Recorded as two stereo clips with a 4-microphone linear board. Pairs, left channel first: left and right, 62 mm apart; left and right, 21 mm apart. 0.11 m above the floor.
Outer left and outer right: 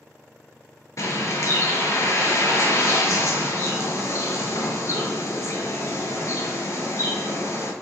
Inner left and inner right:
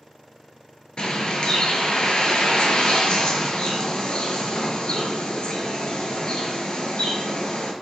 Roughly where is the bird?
Left.